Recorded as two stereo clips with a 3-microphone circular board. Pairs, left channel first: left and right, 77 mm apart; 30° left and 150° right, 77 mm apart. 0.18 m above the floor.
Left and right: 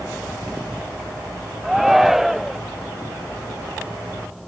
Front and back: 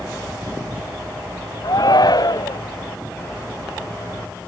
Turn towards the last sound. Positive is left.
turn(degrees=-5)